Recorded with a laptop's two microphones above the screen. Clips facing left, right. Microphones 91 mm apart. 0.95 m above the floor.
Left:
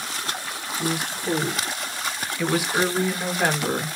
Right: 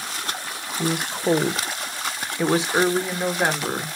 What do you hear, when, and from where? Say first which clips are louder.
0.8 s a woman speaking: right 3 dB; 55° right (ahead or behind), 0.7 m; by 4.0 s 10° right (ahead or behind), 1.5 m